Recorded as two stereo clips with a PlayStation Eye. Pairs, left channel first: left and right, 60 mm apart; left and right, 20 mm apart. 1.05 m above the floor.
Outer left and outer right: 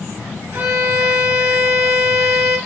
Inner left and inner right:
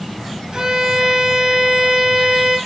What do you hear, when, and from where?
0.5 s a violin: 45° right (ahead or behind), 1.1 m